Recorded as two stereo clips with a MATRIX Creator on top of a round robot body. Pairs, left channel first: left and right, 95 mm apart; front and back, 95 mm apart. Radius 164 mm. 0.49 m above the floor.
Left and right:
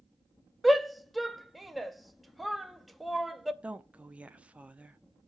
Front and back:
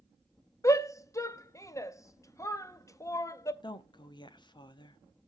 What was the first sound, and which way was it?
A shout, straight ahead.